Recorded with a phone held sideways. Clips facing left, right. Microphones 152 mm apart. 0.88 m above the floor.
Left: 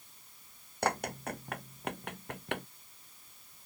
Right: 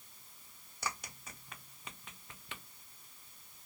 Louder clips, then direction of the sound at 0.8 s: Left 11 dB; 60° left (ahead or behind).